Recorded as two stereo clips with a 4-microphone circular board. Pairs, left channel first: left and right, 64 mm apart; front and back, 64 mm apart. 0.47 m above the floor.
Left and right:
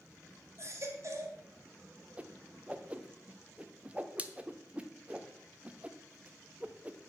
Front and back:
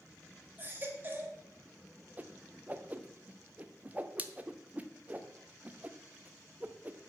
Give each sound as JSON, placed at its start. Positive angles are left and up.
{"t": 0.6, "sound": "a baby crying", "azimuth_deg": -120, "distance_m": 1.5}
{"t": 2.2, "sound": "a whoosh", "azimuth_deg": -140, "distance_m": 0.6}